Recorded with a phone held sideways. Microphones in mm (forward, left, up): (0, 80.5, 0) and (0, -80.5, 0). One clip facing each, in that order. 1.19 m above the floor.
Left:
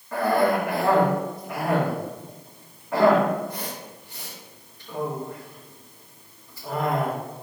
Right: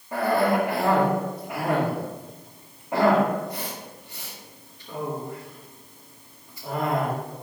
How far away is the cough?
About 2.5 m.